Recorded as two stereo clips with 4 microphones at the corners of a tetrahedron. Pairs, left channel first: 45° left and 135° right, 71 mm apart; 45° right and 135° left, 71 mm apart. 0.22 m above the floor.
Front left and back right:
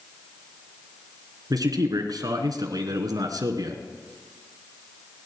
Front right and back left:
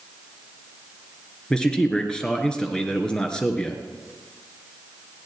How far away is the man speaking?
About 2.5 m.